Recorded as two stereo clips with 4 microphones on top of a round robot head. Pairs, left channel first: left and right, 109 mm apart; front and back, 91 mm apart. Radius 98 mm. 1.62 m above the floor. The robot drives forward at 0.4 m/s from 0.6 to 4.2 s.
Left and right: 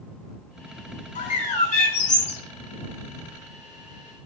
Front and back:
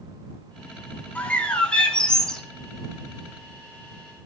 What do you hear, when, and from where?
1.1 s a bird: 75° left, 3.5 m; by 2.4 s 85° left, 3 m